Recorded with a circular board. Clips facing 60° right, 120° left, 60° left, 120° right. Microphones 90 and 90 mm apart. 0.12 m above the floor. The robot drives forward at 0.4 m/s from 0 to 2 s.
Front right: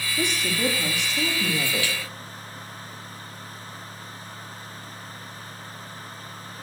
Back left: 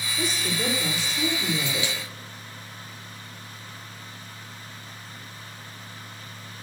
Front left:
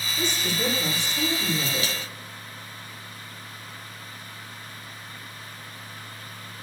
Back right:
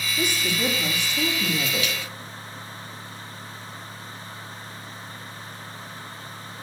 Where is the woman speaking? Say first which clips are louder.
Front right 3 dB, back right 2 dB; 45° right, 4.5 m; by 1.9 s 50° right, 4 m.